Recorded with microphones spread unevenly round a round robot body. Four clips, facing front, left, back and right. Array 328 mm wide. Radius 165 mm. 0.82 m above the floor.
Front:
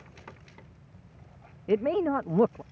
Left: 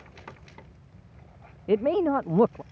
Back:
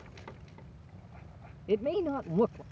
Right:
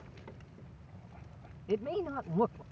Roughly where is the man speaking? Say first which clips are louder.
Left 11 dB, front 4 dB; ahead left.